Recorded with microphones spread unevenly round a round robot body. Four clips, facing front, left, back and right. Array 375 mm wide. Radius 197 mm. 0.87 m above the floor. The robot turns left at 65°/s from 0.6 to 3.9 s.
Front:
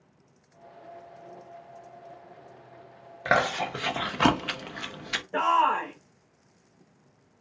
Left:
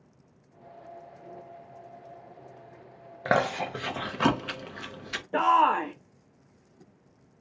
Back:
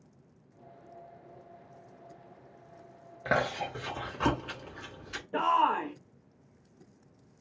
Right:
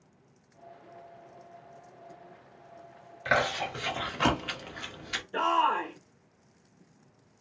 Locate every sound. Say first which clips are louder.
3.2 s chewing: left 2 dB, front 5 dB; 55° left, 1.0 m; by 5.2 s 10° left, 1.0 m
5.3 s a shout: left 4 dB, front 3 dB; 70° left, 0.8 m